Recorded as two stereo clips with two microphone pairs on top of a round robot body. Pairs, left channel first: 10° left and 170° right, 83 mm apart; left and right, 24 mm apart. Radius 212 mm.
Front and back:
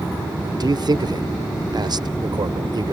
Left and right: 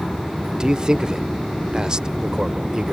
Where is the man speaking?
145° right.